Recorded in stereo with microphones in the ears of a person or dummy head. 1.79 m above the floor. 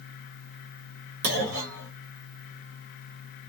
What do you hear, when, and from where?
1.2 s a clunk: 70° right (ahead or behind), 1.2 m